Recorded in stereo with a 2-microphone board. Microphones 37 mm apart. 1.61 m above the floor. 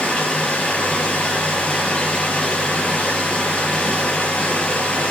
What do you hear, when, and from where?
0.0 s running water: 30° left (ahead or behind), 5.5 m